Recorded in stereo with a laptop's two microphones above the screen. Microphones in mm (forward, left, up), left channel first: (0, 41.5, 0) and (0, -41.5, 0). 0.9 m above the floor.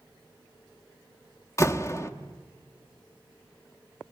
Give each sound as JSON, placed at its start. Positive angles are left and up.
{"t": 1.6, "sound": "a door slam", "side_deg": 35, "distance_m": 0.9}